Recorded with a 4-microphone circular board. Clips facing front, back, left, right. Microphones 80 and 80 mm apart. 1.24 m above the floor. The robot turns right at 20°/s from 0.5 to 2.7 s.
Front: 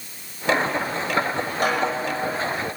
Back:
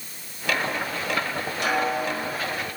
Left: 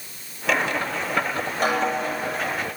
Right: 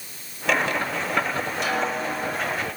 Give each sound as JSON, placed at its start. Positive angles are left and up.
{"t": 1.6, "sound": "a snare drum", "azimuth_deg": 45, "distance_m": 7.0}